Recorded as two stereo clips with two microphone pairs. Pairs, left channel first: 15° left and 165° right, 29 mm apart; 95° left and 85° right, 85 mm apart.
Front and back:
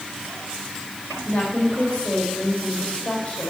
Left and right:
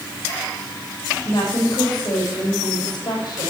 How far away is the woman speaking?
About 4.5 m.